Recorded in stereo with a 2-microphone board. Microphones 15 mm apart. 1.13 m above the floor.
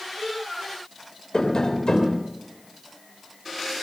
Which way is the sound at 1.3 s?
60° left (ahead or behind).